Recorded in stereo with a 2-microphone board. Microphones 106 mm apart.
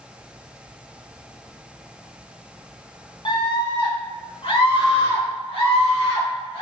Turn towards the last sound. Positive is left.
turn(degrees=60)  # may be behind; listen again after turning